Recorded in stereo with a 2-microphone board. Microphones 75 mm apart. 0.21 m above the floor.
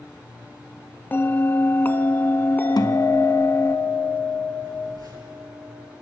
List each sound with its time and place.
1.1 s a bell: 25° left (ahead or behind), 0.5 m
2.8 s a guitar: 65° left (ahead or behind), 0.8 m
4.6 s a phone buzzing: 65° right (ahead or behind), 3.5 m